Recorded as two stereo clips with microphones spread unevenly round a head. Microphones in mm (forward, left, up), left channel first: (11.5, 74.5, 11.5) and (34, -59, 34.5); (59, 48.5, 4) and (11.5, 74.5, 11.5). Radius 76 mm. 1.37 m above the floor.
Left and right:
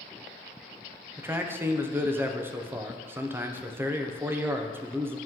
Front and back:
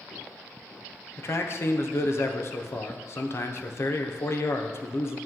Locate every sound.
1.2 s a man speaking: 5° right, 0.7 m